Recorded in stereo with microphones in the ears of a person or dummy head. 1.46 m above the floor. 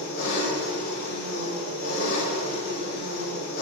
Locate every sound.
0.0 s an engine running: 50° left (ahead or behind), 2.5 m